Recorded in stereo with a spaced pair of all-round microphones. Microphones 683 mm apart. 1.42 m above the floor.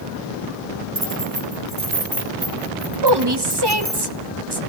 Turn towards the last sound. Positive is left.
turn(degrees=-35)  # may be behind; listen again after turning